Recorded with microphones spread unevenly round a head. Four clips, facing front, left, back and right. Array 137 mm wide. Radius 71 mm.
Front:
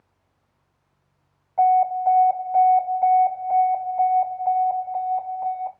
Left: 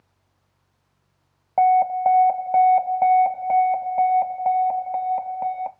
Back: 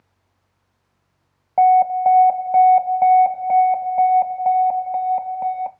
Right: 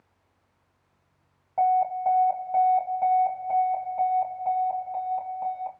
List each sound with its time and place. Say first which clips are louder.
1.6 s an alarm: left 6 dB, back 4 dB; 145° left, 1.3 m